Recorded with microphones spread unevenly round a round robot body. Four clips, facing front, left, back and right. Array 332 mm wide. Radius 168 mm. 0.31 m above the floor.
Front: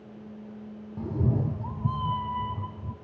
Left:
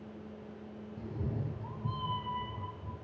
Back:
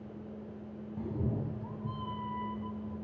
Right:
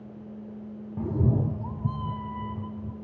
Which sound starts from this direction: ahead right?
A cat meowing, at 1.0 s.